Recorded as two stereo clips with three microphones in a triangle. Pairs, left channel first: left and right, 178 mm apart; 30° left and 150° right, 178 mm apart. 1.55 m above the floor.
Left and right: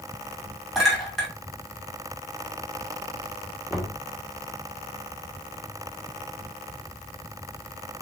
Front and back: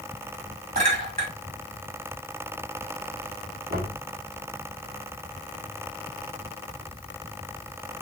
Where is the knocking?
175° right, 1.1 m.